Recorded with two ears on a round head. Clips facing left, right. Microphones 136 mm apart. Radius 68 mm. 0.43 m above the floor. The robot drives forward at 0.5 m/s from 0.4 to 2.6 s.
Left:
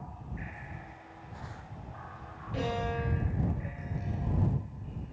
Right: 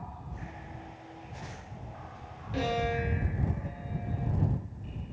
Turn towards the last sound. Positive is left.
turn(degrees=-70)  # may be behind; listen again after turning